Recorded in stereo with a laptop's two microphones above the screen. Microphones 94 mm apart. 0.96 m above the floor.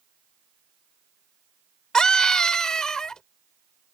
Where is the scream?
5° left (ahead or behind).